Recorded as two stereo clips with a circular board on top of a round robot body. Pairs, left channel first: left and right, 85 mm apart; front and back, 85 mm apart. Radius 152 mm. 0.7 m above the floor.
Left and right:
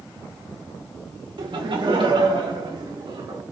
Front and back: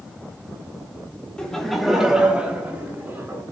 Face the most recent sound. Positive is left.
turn(degrees=-120)